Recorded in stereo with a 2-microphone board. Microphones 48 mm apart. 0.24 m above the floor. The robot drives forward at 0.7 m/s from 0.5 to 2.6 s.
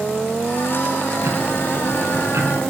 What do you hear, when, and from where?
1.2 s ticking: 60° right (ahead or behind), 1.5 m; by 2.7 s 80° right, 1.3 m